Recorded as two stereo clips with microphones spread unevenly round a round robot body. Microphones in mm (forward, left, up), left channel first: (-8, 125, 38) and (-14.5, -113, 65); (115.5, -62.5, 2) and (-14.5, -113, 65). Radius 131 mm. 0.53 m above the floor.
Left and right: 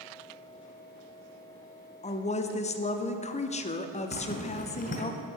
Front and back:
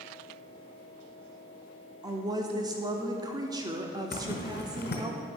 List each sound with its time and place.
2.0 s a woman speaking: 115° left, 0.8 m
4.1 s a zipper: 30° left, 1.6 m